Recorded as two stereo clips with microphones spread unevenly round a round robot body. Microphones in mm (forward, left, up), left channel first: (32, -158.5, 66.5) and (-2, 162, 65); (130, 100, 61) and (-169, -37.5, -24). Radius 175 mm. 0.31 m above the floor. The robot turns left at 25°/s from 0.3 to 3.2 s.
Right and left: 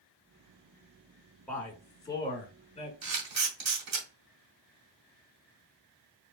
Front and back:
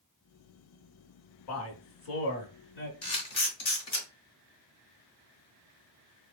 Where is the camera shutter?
75° left, 2.5 m; by 4.1 s 70° left, 2.5 m.